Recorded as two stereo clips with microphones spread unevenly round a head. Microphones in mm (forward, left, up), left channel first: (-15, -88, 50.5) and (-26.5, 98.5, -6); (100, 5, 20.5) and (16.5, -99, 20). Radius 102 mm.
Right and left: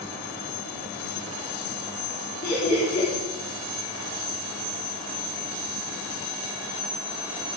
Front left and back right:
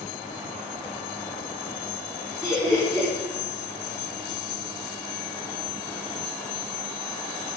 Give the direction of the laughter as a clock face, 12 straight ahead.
1 o'clock.